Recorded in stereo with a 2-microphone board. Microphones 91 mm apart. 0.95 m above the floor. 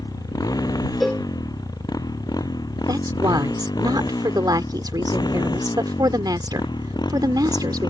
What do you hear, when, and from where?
0.0 s a motorcycle: 45° left (ahead or behind); by 7.9 s 55° left (ahead or behind)
1.0 s a cowbell: centre (ahead or behind)
2.9 s a woman speaking: 55° right (ahead or behind)